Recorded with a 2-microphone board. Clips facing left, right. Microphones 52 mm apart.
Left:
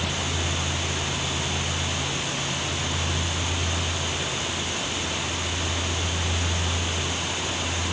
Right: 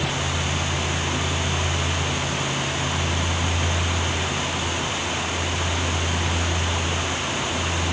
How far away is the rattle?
I don't hear a rattle.